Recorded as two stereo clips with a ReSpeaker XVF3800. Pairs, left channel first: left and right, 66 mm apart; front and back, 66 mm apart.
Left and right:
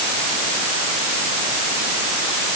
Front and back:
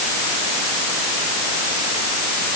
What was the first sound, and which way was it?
Only background noise.